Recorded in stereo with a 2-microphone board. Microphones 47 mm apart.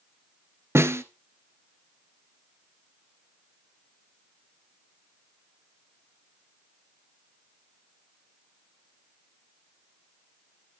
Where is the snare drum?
65° right (ahead or behind), 1.2 m.